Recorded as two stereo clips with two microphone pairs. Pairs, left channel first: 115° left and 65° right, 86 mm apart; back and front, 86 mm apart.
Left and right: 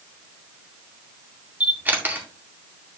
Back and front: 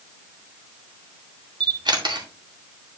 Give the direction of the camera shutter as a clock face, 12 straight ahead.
12 o'clock.